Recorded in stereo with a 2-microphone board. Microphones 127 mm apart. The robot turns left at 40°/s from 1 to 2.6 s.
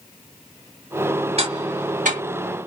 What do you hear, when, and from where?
1.4 s ticking: 50° right (ahead or behind), 0.7 m; by 2.2 s 75° right (ahead or behind), 0.7 m